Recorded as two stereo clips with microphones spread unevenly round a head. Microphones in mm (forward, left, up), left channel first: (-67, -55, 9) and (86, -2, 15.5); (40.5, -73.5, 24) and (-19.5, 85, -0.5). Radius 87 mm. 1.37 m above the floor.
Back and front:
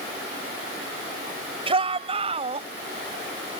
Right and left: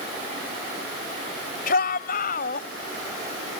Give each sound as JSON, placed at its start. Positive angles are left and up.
{"t": 1.7, "sound": "a shout", "azimuth_deg": -35}